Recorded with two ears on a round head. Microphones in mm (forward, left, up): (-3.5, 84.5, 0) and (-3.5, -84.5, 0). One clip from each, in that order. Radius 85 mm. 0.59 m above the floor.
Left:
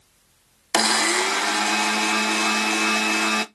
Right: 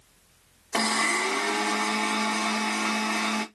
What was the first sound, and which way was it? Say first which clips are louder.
A blender: left 5 dB; 60° left (ahead or behind).